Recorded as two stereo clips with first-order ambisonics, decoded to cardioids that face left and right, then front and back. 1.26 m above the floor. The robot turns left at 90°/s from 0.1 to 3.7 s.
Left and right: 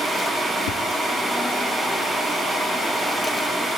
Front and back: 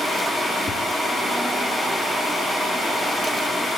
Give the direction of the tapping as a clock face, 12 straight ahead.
10 o'clock.